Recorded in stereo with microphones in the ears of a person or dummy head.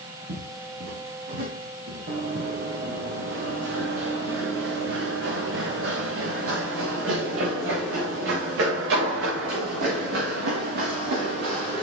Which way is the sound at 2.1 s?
60° right (ahead or behind).